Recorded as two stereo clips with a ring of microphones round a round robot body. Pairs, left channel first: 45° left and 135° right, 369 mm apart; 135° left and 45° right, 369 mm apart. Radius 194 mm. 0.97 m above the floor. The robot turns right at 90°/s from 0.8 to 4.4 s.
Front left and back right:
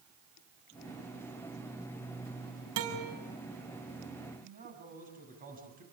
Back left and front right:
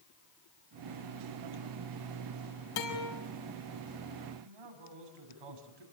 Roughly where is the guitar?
Behind.